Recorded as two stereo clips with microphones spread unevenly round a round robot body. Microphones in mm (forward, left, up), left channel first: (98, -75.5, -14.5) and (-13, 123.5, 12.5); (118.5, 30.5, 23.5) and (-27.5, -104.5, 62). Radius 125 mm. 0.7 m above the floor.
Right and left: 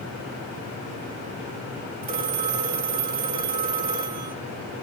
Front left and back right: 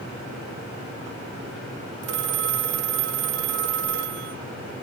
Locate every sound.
2.0 s a phone ringing: straight behind, 1.2 m